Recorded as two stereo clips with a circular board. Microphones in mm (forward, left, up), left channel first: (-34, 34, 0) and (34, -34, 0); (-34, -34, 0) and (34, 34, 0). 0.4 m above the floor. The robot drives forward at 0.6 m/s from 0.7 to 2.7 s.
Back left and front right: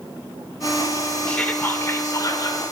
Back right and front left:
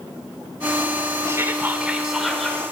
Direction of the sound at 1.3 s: 65° left.